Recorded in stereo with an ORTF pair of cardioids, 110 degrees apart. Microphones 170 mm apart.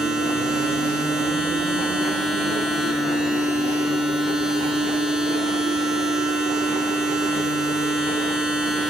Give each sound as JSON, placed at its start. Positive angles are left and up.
{"t": 0.0, "sound": "a machine running", "azimuth_deg": -5, "distance_m": 7.0}